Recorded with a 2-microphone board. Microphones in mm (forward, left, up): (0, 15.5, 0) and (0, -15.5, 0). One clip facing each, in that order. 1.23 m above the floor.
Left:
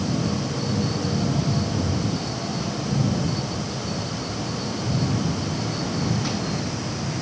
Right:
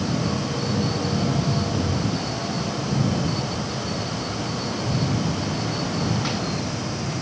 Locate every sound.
Only background noise.